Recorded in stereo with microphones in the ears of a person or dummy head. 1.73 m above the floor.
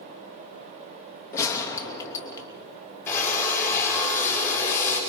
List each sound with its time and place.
1.3 s a gunshot: 15° left (ahead or behind), 2.5 m
3.1 s a drill: 15° left (ahead or behind), 7 m